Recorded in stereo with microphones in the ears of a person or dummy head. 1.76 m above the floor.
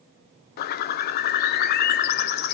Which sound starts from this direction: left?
A bird, at 0.6 s.